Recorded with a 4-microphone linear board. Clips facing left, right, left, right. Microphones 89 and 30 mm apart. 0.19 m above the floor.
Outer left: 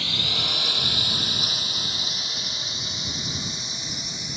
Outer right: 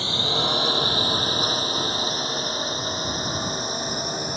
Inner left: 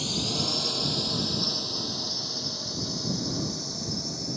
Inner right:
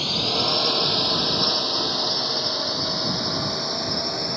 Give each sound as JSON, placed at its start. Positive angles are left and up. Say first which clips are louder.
{"t": 0.0, "sound": "a drone", "louder": "outer right 6 dB, inner right 6 dB", "side_deg": -30}